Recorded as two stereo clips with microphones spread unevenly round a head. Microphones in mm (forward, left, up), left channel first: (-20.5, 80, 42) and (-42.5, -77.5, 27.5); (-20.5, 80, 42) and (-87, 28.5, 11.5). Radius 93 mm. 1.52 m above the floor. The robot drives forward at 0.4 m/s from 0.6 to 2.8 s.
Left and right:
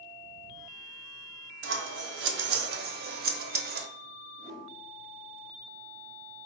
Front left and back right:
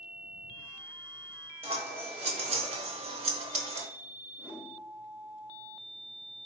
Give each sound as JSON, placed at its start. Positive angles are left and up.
{"t": 1.6, "sound": "scissors", "azimuth_deg": -75, "distance_m": 0.6}
{"t": 4.4, "sound": "a whoosh", "azimuth_deg": 135, "distance_m": 1.0}